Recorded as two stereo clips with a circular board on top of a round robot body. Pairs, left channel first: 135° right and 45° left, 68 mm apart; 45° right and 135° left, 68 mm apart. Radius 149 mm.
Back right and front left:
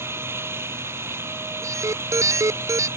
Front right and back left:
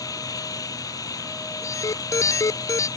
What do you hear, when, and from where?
0.0 s an engine running: 10° right
1.6 s an alarm: 5° right